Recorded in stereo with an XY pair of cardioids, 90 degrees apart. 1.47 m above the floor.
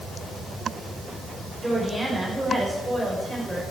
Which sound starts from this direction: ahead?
A woman speaking, at 1.6 s.